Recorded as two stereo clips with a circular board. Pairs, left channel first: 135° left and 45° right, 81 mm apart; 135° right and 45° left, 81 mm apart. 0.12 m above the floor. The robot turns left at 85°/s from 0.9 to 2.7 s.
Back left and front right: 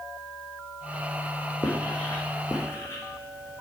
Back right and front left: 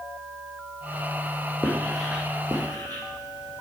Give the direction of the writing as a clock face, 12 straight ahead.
6 o'clock.